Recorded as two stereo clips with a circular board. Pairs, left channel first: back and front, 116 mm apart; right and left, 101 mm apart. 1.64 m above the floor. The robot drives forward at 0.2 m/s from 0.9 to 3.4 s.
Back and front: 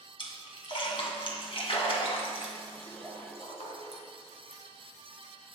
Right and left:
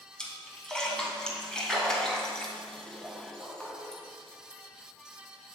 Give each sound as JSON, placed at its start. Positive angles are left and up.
{"t": 0.2, "sound": "a splash", "azimuth_deg": -170, "distance_m": 2.0}